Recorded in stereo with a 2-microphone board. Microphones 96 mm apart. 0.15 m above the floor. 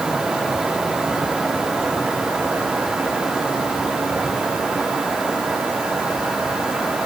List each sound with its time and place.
Only background noise.